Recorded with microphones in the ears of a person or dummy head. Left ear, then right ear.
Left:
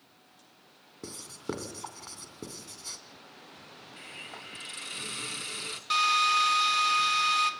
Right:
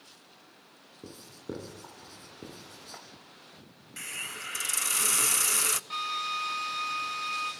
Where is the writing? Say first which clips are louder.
Left 4 dB; 50° left (ahead or behind), 2.5 m.